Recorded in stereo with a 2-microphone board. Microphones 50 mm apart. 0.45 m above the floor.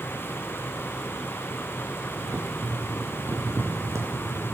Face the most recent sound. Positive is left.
turn(degrees=-70)  # may be behind; listen again after turning